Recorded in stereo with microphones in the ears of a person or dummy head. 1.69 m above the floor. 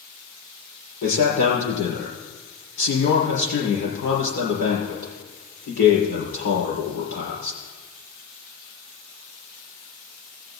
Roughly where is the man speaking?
Left.